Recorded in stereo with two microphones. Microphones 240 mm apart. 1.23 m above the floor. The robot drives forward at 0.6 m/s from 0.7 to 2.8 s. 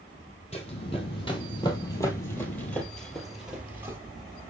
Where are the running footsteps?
25° left (ahead or behind), 1.7 m; by 4.0 s 10° right (ahead or behind), 1.2 m.